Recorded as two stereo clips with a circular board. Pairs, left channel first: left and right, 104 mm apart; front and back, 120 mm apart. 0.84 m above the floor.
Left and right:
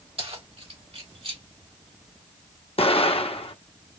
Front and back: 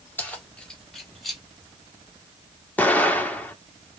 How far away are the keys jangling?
About 1.6 m.